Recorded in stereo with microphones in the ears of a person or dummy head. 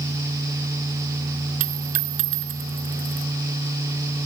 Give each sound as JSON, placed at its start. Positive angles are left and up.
{"t": 1.6, "sound": "a dropped coin", "side_deg": -45}